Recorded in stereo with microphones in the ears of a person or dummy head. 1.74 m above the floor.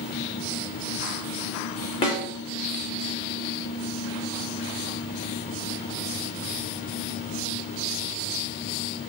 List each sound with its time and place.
2.0 s a snare drum: 30° left (ahead or behind), 3 m